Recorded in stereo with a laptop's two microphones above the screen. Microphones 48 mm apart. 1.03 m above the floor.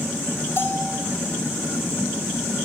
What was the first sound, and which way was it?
A bell, 60° left (ahead or behind).